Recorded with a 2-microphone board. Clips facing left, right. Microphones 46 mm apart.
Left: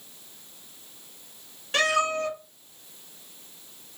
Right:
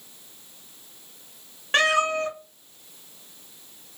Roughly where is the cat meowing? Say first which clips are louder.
Right 3 dB; right.